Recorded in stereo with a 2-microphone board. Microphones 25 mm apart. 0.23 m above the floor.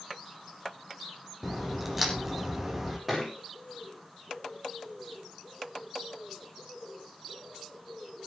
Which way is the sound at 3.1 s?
10° right (ahead or behind).